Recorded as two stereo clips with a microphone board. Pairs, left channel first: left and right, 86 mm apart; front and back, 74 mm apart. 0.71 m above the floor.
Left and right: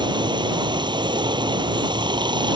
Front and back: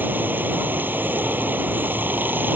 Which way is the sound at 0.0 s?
115° right.